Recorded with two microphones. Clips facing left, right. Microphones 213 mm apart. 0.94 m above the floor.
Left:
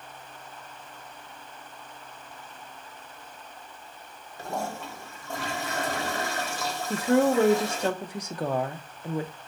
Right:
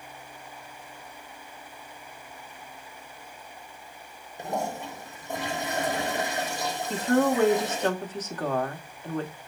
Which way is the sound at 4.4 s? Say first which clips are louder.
Right 2 dB; 15° right (ahead or behind).